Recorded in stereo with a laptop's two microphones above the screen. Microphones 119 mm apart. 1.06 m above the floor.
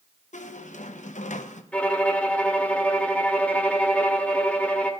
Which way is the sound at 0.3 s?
75° left (ahead or behind).